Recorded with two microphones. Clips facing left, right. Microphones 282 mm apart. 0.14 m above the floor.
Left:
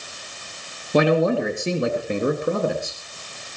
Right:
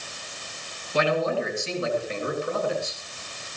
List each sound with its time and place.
0.9 s a man speaking: 65° left (ahead or behind), 3 m; by 3.0 s 50° left (ahead or behind), 3 m